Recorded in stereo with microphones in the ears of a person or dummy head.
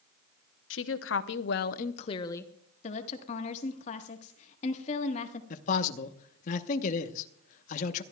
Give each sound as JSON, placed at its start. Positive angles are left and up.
{"t": 0.7, "sound": "a woman speaking", "side_deg": 65, "distance_m": 0.9}
{"t": 2.8, "sound": "a woman speaking", "side_deg": 45, "distance_m": 1.4}
{"t": 5.5, "sound": "a man speaking", "side_deg": 45, "distance_m": 1.0}